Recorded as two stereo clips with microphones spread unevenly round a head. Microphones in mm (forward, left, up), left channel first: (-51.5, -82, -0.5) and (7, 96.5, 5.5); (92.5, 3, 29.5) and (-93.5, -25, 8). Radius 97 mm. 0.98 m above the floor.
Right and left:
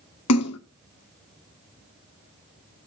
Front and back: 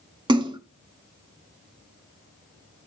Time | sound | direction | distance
0.3 | a splash | 105° right | 1.0 m